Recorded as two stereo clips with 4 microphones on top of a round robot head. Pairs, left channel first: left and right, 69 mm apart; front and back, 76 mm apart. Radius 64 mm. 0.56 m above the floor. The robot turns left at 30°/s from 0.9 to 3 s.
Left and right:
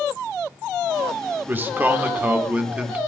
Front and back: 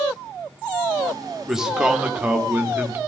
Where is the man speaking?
100° right, 1.1 m; by 3.0 s 145° right, 1.1 m.